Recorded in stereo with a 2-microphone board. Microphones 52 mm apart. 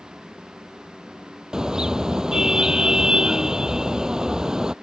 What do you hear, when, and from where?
1.5 s a car horn: 15° right (ahead or behind)